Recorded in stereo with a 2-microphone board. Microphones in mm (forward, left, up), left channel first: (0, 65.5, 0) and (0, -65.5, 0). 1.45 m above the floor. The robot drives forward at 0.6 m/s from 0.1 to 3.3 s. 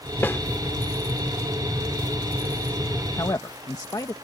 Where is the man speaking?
25° left (ahead or behind); by 4.1 s 30° left (ahead or behind).